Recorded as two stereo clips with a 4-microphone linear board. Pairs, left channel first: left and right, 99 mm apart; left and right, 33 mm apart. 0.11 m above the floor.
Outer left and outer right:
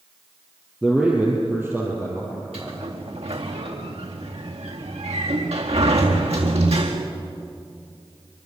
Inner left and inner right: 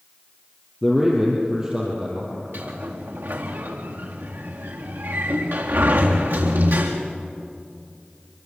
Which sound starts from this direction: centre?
A man speaking, at 0.8 s.